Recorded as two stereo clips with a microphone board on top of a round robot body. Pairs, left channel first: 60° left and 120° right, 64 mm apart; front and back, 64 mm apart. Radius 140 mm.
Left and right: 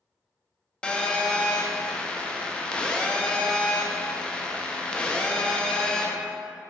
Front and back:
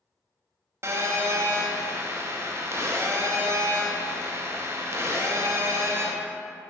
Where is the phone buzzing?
135° left, 0.6 m.